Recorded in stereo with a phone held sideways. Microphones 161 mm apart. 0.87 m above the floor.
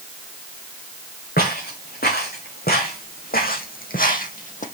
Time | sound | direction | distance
1.4 | footsteps | 75° left (ahead or behind) | 3.5 m